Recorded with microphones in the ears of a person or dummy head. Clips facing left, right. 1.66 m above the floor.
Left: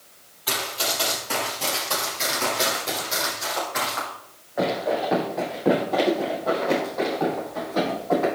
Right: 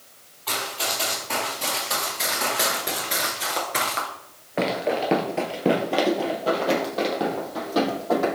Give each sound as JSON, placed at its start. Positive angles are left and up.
{"t": 0.5, "sound": "running footsteps", "side_deg": 15, "distance_m": 3.0}